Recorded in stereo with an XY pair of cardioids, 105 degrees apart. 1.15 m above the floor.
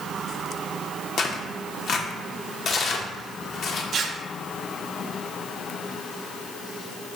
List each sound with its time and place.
1.2 s tearing paper: 55° left, 0.7 m
3.9 s tearing paper: 55° right, 0.6 m